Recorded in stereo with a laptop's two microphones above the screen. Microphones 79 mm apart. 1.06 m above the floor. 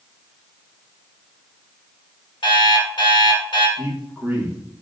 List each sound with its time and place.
2.4 s an alarm clock: 80° left, 1.8 m
3.8 s a man speaking: 15° right (ahead or behind), 1.6 m